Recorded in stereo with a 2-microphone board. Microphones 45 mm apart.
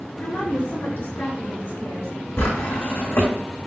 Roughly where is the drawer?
Left.